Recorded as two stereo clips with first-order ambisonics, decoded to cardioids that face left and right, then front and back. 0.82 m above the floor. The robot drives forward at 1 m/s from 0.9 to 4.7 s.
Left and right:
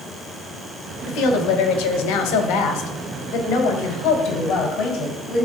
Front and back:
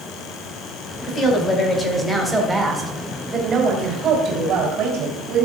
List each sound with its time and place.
1.1 s a woman speaking: 60° left, 2.5 m; by 5.5 s 135° left, 3.5 m